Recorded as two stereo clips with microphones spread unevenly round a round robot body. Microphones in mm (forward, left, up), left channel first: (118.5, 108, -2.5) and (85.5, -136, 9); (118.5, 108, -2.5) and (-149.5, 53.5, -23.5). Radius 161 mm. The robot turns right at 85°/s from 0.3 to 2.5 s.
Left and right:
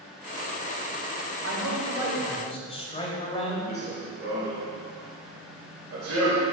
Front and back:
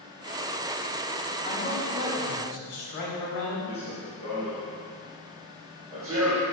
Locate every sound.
1.4 s a man speaking: 70° right, 3 m; by 3.6 s 20° left, 3 m
3.7 s running footsteps: 50° right, 3 m; by 6.4 s 90° right, 3 m